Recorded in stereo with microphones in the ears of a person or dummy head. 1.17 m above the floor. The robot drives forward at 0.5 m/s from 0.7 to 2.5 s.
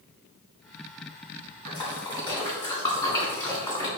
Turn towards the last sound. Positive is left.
turn(degrees=20)  # may be behind; listen again after turning